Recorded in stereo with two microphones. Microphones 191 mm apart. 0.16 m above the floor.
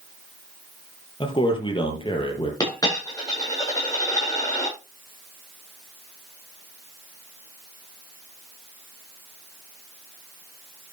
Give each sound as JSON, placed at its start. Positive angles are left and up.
{"t": 1.2, "sound": "a man speaking", "side_deg": 25, "distance_m": 4.0}
{"t": 2.6, "sound": "a dropped coin", "side_deg": 20, "distance_m": 7.5}